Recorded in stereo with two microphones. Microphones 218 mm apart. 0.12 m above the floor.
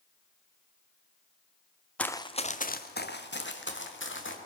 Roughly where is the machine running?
No machine running in this recording.